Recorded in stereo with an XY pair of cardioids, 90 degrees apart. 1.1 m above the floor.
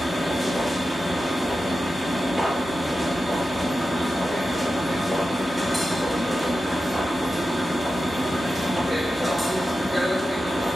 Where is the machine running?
5° left, 0.8 m.